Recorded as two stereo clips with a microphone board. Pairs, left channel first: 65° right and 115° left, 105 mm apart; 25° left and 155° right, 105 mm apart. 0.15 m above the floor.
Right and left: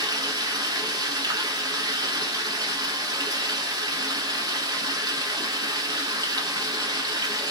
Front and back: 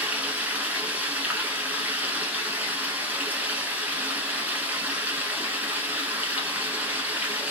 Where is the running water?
135° left, 0.8 m.